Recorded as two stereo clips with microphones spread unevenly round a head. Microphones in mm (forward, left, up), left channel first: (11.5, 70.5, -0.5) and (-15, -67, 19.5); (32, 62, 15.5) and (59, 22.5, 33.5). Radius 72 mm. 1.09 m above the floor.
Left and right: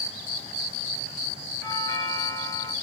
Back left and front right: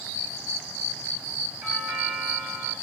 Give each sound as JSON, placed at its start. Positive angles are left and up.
{"t": 1.6, "sound": "a doorbell", "azimuth_deg": 10, "distance_m": 5.5}